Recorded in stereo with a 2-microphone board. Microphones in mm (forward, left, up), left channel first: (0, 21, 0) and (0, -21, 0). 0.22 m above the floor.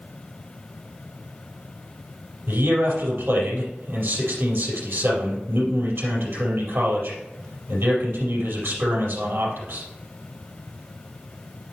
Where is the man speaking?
65° right (ahead or behind), 4.5 m.